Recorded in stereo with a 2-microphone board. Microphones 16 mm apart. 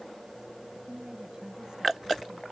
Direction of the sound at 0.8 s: 40° right (ahead or behind).